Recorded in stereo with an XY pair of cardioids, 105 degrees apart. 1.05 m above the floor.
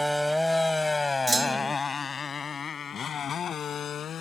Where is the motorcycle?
5° right; by 4.2 s 55° left.